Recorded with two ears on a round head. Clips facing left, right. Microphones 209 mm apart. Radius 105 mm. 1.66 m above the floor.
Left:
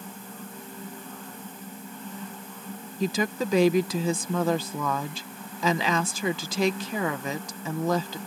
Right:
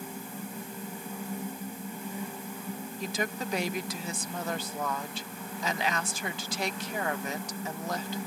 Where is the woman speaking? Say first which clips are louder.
Left 8 dB; 70° left (ahead or behind).